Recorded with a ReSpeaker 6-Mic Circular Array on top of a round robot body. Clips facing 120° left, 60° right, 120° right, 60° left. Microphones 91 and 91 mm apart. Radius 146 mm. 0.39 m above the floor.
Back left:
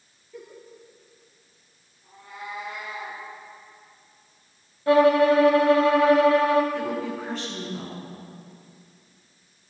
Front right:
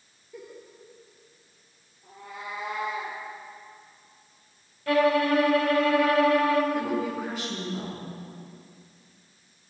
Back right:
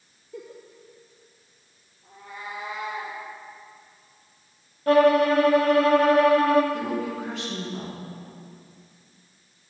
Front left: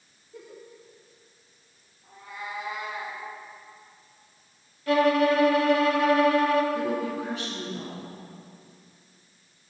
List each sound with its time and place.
0.3 s a giggle: 145° right, 3 m
2.0 s a cat meowing: 60° right, 6 m
4.9 s a violin: 175° right, 1.6 m
6.7 s a woman speaking: 145° right, 6 m